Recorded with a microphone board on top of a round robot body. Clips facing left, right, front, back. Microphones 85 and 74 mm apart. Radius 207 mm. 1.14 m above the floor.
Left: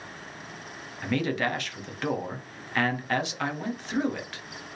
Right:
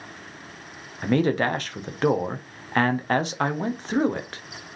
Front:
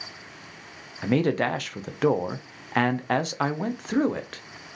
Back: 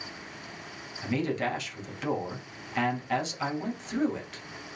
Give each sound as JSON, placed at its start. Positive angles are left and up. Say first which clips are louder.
{"t": 1.0, "sound": "a man speaking", "louder": "right 6 dB, front 6 dB", "azimuth_deg": -35, "distance_m": 0.9}